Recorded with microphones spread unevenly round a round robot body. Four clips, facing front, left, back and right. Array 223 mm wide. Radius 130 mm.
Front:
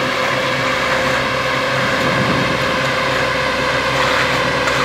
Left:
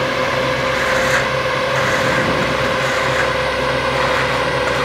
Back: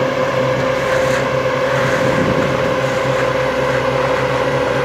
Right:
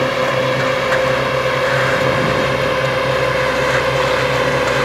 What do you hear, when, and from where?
0.0 s a drone: 155° right; by 4.8 s 150° right